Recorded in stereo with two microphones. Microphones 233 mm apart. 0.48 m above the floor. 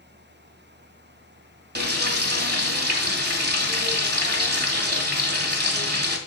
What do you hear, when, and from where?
1.8 s frying: 45° right (ahead or behind), 1.9 m